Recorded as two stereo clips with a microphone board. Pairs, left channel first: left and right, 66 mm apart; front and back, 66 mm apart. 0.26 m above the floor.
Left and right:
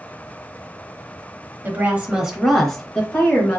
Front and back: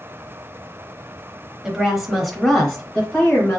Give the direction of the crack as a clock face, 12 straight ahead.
No crack in this recording.